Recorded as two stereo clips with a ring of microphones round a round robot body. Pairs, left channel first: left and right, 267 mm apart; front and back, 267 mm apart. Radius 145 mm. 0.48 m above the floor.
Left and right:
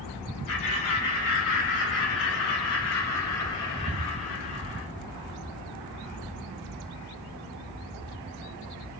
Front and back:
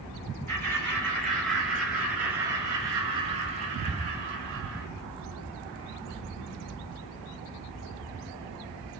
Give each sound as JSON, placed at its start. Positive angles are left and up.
{"t": 0.5, "sound": "laughter", "azimuth_deg": 80, "distance_m": 6.0}